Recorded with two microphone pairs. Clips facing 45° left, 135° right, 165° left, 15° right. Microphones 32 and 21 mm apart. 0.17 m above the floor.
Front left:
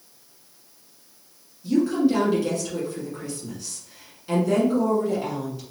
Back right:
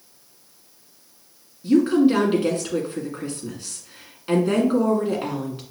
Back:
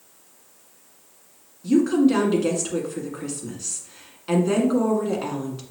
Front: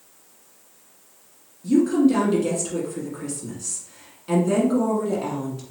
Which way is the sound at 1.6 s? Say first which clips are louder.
Back right 4 dB, even; 150° right.